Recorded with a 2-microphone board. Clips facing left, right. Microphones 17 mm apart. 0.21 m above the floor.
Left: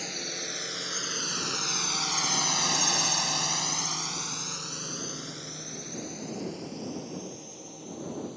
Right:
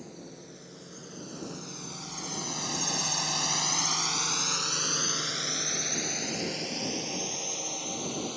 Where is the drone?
60° left (ahead or behind); by 8.4 s 50° right (ahead or behind).